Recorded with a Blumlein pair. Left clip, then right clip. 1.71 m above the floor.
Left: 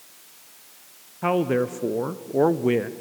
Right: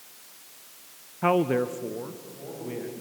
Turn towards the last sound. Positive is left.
turn(degrees=60)